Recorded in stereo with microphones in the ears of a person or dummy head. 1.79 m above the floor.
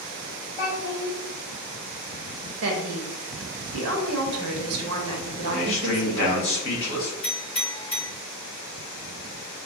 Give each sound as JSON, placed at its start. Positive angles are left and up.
{"t": 0.6, "sound": "a child speaking", "side_deg": 45, "distance_m": 1.3}
{"t": 2.6, "sound": "a woman speaking", "side_deg": -70, "distance_m": 0.6}
{"t": 5.4, "sound": "a man speaking", "side_deg": 60, "distance_m": 1.4}
{"t": 7.2, "sound": "a clink", "side_deg": 35, "distance_m": 1.9}